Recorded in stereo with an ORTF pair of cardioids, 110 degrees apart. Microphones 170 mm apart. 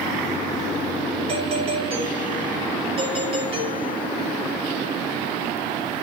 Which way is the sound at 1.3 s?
35° right.